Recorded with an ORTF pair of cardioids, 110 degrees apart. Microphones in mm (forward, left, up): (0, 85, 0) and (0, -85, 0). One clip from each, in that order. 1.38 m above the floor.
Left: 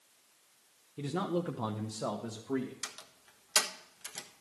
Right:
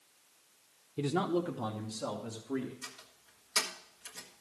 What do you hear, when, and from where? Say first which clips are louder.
1.0 s a man speaking: right 3 dB; 25° right, 0.7 m; by 2.7 s 45° left, 1.9 m
2.8 s a door slam: left 4 dB; 50° left, 1.2 m